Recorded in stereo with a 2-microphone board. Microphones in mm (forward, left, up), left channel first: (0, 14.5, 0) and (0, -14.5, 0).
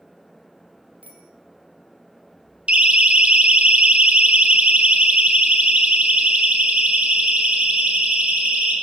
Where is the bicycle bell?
60° right (ahead or behind), 4.5 m.